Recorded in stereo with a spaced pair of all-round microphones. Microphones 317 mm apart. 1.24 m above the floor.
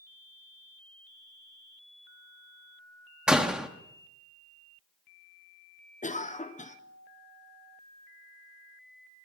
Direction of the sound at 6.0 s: 25° left (ahead or behind).